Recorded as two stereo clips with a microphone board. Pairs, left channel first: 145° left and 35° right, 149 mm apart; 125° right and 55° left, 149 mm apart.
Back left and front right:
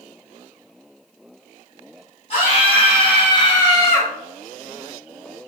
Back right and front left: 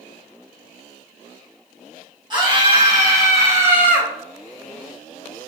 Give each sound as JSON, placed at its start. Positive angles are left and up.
{"t": 2.3, "sound": "a scream", "azimuth_deg": 110, "distance_m": 1.6}